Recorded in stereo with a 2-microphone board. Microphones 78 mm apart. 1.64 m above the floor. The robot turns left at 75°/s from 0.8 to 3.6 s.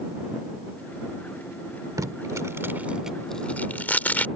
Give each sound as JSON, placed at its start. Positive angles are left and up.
{"t": 2.0, "sound": "tape being pulled", "side_deg": -50}